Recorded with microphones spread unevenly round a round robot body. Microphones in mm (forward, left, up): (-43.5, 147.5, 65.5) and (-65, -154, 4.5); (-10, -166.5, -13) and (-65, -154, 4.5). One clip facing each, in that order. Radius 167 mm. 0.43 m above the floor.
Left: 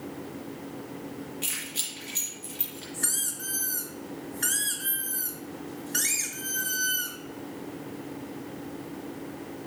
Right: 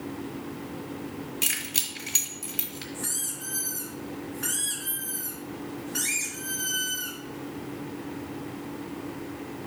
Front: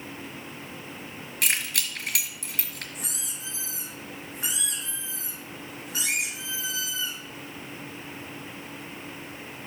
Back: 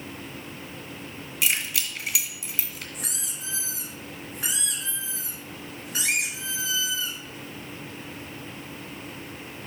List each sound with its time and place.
1.4 s keys jangling: 45° right, 3 m
2.9 s a squeak: 60° left, 3.5 m